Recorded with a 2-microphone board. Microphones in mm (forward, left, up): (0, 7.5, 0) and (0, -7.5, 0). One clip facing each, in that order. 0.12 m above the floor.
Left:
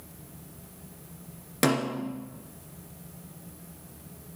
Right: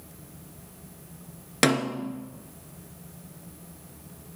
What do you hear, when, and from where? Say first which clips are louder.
1.6 s a snare drum: right 2 dB; 35° right (ahead or behind), 1.7 m